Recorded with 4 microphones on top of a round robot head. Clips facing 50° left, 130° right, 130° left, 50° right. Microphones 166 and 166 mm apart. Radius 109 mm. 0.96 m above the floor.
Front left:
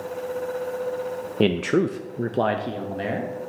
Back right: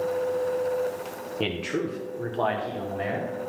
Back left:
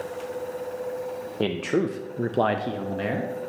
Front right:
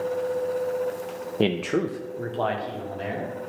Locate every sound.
1.4 s a man speaking: 15° left, 0.5 m; by 3.3 s 110° left, 1.3 m